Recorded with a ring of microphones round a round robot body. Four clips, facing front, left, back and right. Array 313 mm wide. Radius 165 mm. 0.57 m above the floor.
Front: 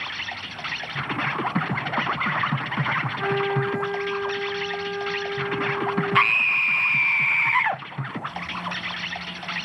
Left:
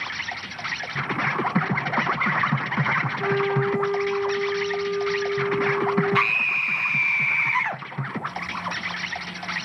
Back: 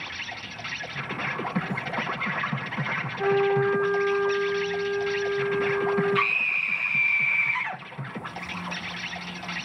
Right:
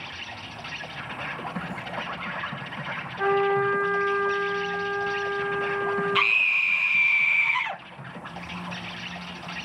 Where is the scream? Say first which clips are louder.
Left 2 dB, front 5 dB; 15° left, 1.1 m.